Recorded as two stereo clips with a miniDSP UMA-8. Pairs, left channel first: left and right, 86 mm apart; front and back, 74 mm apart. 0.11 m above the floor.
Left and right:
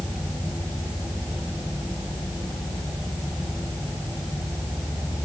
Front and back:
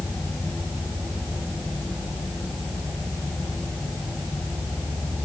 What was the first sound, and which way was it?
Only background noise.